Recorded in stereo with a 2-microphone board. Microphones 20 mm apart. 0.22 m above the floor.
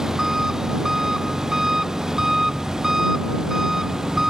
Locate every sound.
0.0 s an engine running: 20° right (ahead or behind)